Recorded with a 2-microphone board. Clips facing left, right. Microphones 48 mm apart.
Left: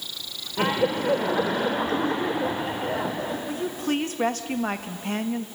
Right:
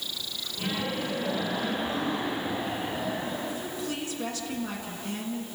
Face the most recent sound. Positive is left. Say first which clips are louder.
# left 6 dB
turn(degrees=50)  # may be behind; listen again after turning